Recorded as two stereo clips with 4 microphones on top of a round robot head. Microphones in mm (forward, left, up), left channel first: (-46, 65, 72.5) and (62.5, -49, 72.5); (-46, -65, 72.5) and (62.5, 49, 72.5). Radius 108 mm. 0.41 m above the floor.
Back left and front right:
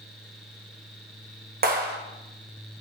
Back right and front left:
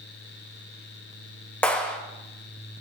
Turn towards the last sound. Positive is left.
turn(degrees=-50)